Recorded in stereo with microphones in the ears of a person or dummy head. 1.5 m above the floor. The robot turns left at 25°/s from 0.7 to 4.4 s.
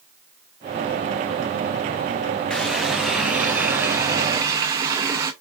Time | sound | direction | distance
2.5 | a running tap | 5° right | 0.5 m